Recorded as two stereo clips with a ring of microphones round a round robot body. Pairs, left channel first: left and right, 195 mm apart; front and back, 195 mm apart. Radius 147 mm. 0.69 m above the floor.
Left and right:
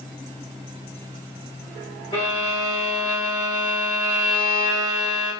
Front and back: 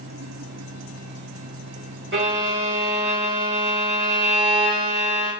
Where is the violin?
160° left, 3.5 m.